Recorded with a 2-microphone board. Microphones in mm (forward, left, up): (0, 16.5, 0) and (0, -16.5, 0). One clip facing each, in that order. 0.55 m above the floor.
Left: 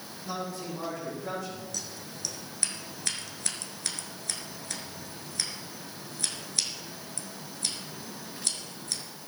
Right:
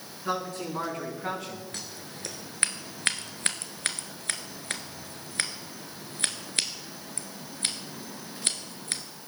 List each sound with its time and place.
0.2 s a man speaking: 75° right (ahead or behind), 5.5 m
1.7 s scissors: 45° right (ahead or behind), 1.2 m